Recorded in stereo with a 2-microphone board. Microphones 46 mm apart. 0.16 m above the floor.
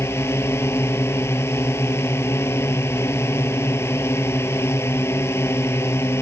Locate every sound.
0.0 s a drone: 65° left (ahead or behind)